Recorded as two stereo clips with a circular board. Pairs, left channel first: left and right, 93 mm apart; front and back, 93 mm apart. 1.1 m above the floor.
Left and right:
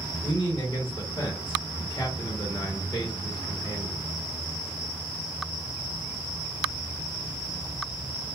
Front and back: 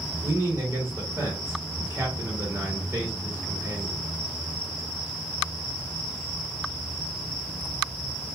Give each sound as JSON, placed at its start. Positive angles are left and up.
{"t": 0.2, "sound": "a man speaking", "azimuth_deg": 125, "distance_m": 1.0}